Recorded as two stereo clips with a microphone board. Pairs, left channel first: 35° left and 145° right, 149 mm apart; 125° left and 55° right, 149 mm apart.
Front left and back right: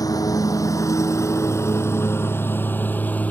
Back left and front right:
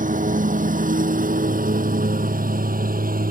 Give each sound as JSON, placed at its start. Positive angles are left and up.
{"t": 0.0, "sound": "a lawn mower", "azimuth_deg": -30}